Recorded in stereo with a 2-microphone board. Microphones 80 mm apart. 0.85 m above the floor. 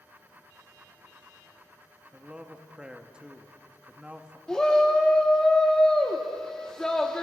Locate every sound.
2.1 s a man speaking: 15° right (ahead or behind), 1.2 m
4.5 s a shout: 10° left (ahead or behind), 1.4 m